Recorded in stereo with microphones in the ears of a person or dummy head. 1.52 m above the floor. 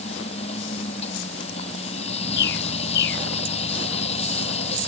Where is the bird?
65° left (ahead or behind).